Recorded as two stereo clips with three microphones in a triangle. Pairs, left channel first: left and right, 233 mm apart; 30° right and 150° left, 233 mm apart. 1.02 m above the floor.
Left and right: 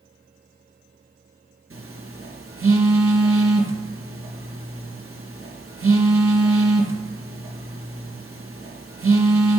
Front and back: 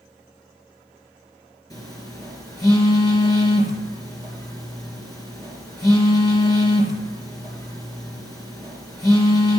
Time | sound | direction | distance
1.7 | a phone buzzing | 105° right | 2.5 m